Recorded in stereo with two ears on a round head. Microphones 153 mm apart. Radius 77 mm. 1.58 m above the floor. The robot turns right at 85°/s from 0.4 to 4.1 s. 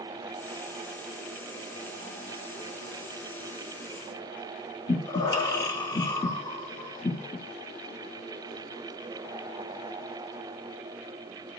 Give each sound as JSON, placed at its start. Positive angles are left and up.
{"t": 4.9, "sound": "breathing", "side_deg": 20, "distance_m": 1.4}